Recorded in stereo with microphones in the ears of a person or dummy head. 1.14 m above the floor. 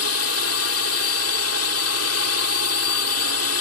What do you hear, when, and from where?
0.0 s a drone: 75° left (ahead or behind)